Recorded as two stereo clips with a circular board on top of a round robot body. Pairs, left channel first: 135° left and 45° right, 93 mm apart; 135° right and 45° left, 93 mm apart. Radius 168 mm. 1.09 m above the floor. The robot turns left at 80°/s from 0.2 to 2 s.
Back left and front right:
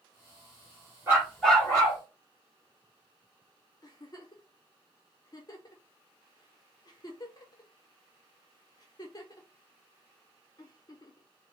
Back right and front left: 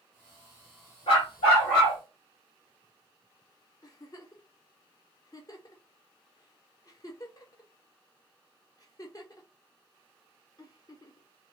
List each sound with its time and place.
1.1 s a dog barking: 110° right, 0.9 m; by 2.0 s 175° left, 0.9 m
3.8 s a giggle: straight behind, 0.9 m